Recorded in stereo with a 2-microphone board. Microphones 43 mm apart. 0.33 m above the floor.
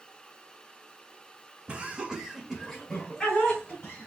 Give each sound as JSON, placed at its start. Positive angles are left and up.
{"t": 1.7, "sound": "laughter", "side_deg": -25, "distance_m": 1.0}